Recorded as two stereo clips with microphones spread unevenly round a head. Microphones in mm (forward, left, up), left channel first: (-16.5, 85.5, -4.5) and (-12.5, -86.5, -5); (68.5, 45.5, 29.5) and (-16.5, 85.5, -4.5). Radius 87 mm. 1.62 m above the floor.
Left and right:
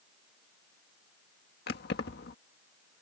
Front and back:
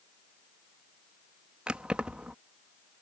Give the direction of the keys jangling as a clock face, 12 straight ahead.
10 o'clock.